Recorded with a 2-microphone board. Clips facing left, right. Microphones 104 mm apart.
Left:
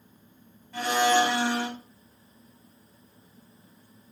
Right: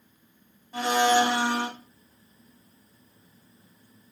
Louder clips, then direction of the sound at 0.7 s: Right 1 dB; 25° right (ahead or behind).